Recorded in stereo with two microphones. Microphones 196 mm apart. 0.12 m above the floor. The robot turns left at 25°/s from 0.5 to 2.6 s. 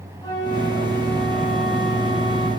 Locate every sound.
0.2 s a flute: 20° left, 3 m; by 2.5 s 30° right, 3 m